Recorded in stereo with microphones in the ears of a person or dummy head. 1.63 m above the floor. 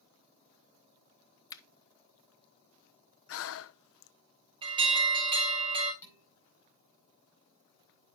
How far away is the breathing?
About 0.6 m.